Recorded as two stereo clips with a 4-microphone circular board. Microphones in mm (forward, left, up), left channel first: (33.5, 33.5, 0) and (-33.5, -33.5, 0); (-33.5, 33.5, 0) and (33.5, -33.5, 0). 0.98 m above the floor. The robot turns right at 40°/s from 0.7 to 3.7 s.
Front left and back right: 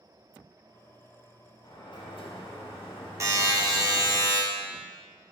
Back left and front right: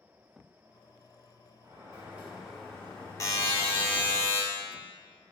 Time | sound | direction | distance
1.6 | a sliding door | 5° left | 0.6 m
3.2 | a buzzer | straight behind | 0.6 m